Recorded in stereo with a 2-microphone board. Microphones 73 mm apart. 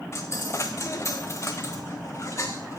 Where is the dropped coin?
40° left (ahead or behind), 1.4 m.